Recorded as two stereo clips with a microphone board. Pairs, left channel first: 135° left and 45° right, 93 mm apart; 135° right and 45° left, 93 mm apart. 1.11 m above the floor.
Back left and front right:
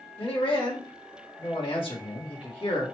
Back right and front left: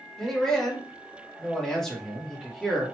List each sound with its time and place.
0.2 s a man speaking: 140° left, 1.6 m